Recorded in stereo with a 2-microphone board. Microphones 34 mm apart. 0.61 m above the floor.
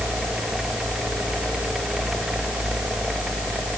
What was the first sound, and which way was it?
Only background noise.